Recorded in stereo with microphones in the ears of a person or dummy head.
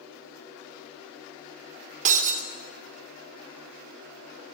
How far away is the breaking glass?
About 2.5 m.